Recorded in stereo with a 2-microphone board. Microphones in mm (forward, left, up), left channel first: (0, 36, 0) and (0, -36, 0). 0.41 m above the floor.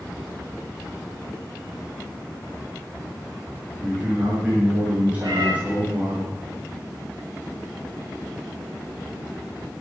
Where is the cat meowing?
60° right (ahead or behind), 5 m.